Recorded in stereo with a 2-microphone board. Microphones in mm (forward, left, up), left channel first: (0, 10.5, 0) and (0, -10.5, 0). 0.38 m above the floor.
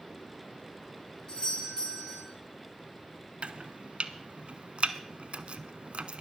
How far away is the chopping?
About 0.8 m.